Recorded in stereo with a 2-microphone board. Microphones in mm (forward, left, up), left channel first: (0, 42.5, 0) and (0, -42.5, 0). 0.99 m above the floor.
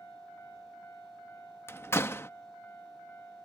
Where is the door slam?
30° left (ahead or behind).